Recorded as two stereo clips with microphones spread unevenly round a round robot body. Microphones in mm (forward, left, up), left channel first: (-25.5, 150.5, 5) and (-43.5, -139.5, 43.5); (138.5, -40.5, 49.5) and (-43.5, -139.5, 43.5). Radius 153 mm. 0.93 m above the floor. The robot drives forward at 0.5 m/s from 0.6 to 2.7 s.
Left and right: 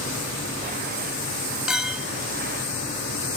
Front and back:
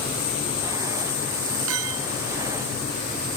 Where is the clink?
Straight behind.